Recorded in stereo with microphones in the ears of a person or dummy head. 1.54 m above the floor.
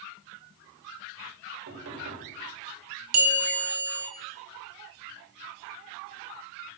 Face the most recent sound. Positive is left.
turn(degrees=-85)